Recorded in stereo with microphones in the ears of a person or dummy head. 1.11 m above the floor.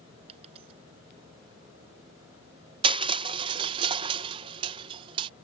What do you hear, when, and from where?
0.3 s a dropped coin: 35° right (ahead or behind)
2.8 s crushing: 30° right (ahead or behind)